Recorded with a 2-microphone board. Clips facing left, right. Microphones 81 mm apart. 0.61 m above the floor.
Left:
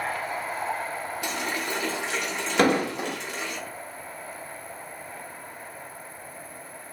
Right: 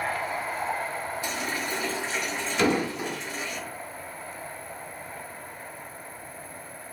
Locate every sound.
1.2 s a running tap: 70° left (ahead or behind), 1.3 m
2.6 s an explosion: 50° left (ahead or behind), 0.9 m